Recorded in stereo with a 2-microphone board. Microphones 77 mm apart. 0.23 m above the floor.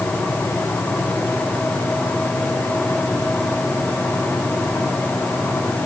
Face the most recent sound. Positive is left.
No sound to turn to.